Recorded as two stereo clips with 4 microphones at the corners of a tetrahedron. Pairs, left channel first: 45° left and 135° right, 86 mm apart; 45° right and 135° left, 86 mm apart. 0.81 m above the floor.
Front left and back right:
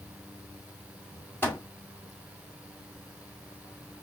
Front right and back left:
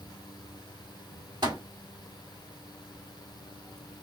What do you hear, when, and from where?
1.4 s a microwave: 105° left, 2 m